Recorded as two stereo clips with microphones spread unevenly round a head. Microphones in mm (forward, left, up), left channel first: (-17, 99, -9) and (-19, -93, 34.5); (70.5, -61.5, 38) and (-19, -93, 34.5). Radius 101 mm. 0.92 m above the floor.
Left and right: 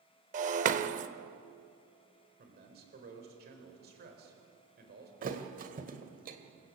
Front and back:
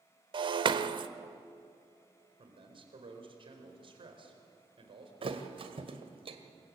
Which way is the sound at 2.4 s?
135° right.